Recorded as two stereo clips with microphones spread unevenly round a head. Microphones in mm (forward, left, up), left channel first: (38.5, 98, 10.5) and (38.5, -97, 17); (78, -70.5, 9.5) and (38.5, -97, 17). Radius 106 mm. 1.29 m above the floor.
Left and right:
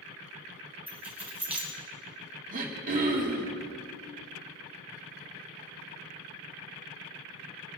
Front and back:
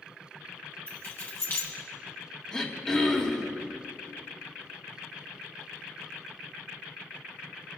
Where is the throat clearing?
40° right, 2.5 m.